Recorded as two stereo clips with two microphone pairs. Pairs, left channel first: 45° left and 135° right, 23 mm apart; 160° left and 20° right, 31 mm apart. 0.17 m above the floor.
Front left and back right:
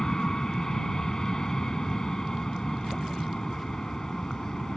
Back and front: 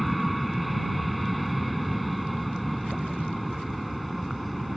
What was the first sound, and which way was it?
An aircraft, 70° left.